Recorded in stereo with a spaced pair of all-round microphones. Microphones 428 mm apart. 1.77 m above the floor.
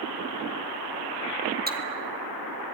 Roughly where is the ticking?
Right.